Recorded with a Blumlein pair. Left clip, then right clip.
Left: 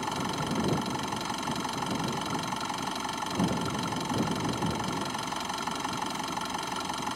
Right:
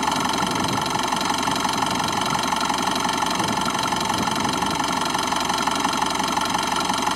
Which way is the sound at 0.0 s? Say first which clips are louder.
Right 11 dB; 60° right.